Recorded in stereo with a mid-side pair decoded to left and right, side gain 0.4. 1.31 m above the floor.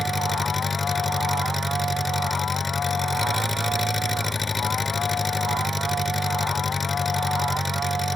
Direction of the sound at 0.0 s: 25° left.